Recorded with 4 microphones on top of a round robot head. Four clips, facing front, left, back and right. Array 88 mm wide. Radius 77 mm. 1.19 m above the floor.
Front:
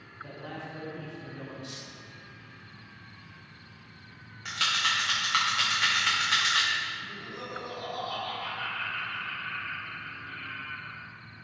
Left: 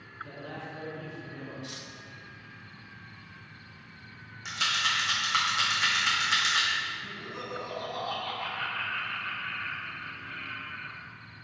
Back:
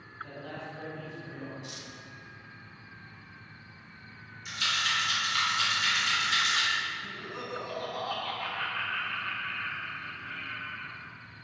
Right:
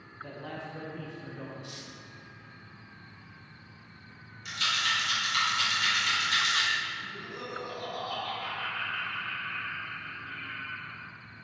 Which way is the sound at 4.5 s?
35° left.